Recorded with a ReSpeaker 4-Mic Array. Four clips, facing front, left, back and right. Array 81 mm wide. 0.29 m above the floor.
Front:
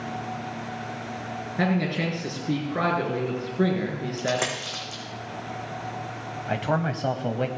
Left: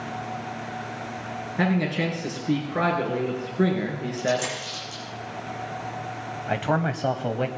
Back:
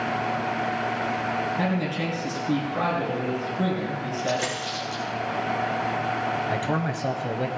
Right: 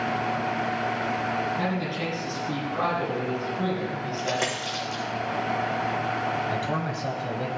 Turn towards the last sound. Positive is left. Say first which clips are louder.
# left 3 dB, even
turn(degrees=65)